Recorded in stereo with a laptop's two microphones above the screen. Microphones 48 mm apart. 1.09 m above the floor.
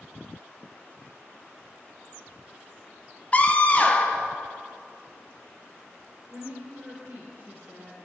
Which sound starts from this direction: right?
A woman speaking, at 6.3 s.